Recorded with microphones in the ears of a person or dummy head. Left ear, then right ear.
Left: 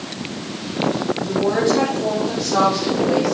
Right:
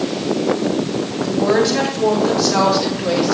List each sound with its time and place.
1.2 s a woman speaking: 65° right (ahead or behind), 5 m; by 3.3 s 50° right (ahead or behind), 5.5 m